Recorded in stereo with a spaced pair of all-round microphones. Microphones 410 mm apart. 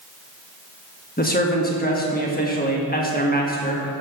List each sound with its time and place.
1.2 s a man speaking: 20° left (ahead or behind), 1.3 m